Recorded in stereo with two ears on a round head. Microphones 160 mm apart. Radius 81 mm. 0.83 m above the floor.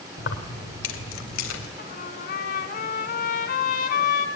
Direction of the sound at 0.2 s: 70° left (ahead or behind).